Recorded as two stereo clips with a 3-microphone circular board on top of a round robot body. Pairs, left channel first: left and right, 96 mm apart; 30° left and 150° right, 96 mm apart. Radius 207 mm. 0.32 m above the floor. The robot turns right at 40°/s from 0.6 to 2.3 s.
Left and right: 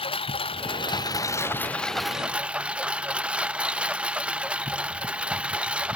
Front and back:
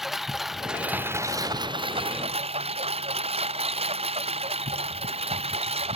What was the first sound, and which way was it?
A lawn mower, 125° left.